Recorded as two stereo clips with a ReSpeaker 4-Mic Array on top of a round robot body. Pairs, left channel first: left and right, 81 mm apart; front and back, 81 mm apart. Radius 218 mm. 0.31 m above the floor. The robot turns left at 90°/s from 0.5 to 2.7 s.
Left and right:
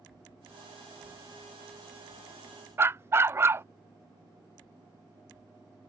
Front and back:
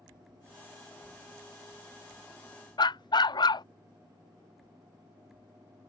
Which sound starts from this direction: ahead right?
A dog barking, at 2.8 s.